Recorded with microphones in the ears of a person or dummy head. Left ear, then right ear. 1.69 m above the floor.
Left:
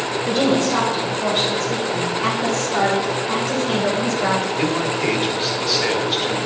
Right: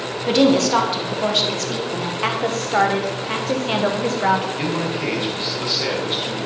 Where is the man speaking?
5° left (ahead or behind), 1.9 m.